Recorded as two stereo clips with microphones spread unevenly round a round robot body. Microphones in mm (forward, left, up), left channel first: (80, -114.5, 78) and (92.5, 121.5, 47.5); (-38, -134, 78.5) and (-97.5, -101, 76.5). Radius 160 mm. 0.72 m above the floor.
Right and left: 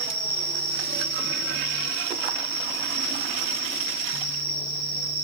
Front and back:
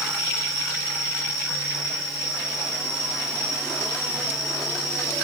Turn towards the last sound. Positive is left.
turn(degrees=55)